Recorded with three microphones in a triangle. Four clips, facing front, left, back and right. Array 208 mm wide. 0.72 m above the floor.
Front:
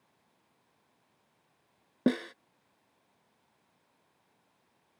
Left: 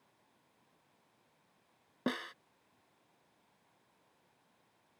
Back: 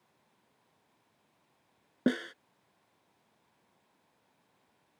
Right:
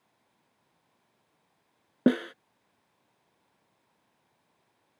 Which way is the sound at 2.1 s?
85° right.